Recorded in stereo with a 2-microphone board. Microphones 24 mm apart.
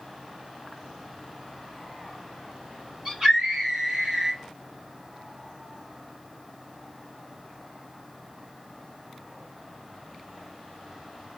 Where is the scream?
30° right (ahead or behind), 2.5 m.